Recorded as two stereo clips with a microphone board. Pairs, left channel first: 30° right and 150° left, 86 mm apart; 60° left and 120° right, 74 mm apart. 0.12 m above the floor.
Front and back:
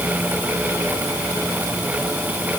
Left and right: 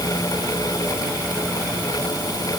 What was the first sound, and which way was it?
Only background noise.